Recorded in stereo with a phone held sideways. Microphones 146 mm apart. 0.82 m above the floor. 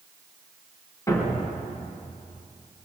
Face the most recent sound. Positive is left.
turn(degrees=20)  # may be behind; listen again after turning